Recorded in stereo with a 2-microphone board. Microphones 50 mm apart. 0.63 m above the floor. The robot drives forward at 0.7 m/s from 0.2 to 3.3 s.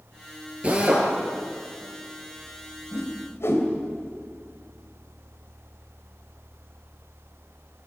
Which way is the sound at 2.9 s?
60° left (ahead or behind).